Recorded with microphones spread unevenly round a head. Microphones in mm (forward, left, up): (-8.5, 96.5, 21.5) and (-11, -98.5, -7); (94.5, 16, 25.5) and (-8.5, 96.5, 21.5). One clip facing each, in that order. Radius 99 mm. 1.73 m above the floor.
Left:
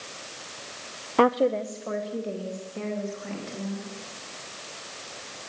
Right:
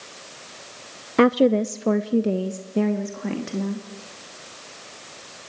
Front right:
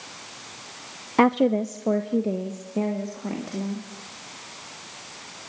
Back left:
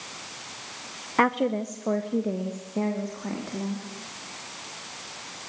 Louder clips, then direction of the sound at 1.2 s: Right 5 dB, front right 5 dB; 40° right.